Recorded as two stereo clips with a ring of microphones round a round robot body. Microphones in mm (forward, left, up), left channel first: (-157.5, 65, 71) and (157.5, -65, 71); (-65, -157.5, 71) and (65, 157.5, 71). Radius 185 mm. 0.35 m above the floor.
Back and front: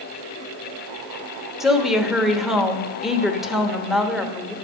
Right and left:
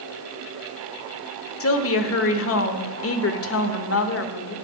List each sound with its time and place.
1.6 s a woman speaking: 110° right, 1.1 m